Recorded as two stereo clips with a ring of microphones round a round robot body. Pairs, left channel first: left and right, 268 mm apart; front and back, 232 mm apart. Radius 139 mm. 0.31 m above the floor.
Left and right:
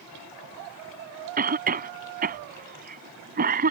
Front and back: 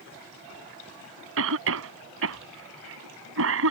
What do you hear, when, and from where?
1.4 s a cough: 145° right